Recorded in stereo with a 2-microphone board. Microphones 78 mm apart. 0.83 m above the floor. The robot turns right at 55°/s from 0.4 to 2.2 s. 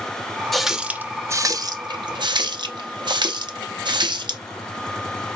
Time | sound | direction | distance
0.5 | a running tap | 5° left (ahead or behind) | 0.6 m